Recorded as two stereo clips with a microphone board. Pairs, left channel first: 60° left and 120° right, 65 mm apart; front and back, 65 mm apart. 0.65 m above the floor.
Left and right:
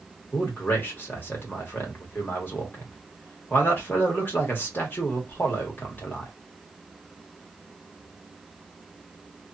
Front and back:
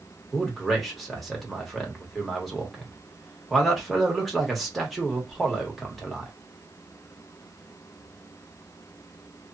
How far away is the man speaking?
About 1.1 m.